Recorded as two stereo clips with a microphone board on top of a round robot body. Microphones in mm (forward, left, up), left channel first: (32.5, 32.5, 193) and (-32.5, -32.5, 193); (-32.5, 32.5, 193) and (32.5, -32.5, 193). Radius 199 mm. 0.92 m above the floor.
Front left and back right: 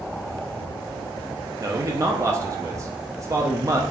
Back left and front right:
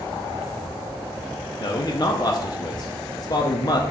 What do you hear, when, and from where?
1.6 s a man speaking: 175° left, 0.6 m